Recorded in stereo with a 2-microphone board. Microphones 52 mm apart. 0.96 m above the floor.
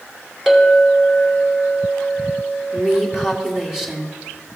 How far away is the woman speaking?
About 2 m.